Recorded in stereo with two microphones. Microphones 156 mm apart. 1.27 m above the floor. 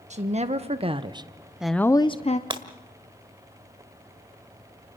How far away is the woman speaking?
About 1.5 m.